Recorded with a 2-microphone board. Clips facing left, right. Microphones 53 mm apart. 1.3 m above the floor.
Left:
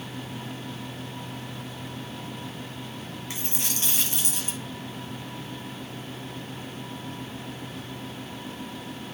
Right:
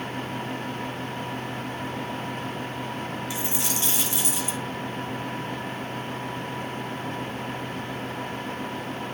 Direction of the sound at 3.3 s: 45° left (ahead or behind).